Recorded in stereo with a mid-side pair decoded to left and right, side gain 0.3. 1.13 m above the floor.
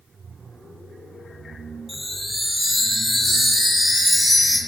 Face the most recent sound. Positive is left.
turn(degrees=15)